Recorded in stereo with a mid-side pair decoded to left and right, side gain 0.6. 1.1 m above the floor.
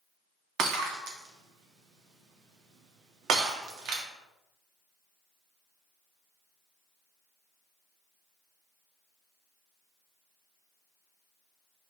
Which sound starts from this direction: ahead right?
Breaking glass, at 0.6 s.